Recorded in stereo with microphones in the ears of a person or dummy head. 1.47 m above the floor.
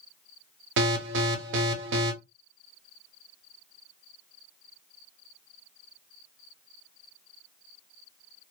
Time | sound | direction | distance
0.8 | an alarm | 50° right (ahead or behind) | 0.6 m